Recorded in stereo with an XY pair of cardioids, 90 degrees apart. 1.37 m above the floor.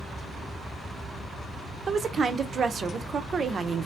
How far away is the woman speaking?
About 0.6 m.